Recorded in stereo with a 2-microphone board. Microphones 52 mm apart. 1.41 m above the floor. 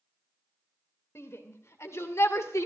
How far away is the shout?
About 2.5 m.